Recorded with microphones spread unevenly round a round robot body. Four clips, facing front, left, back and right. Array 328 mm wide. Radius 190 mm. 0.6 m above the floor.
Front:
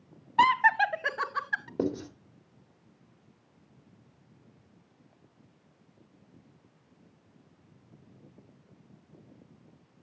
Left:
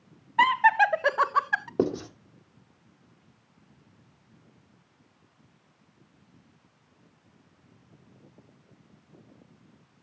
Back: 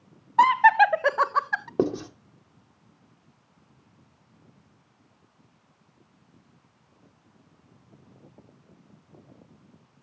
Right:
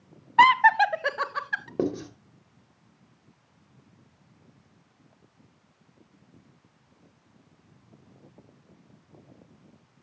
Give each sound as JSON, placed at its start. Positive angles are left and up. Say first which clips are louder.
{"t": 0.4, "sound": "laughter", "louder": "right 3 dB, back 6 dB", "azimuth_deg": -105, "distance_m": 0.6}
{"t": 1.8, "sound": "writing", "louder": "left 1 dB, back 6 dB", "azimuth_deg": 180, "distance_m": 3.0}